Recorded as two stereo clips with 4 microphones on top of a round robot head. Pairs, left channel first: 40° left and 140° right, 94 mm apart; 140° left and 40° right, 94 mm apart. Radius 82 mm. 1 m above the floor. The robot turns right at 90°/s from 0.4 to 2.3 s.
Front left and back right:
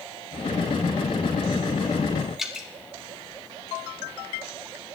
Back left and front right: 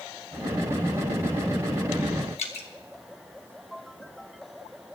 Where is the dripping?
135° left, 1.7 m.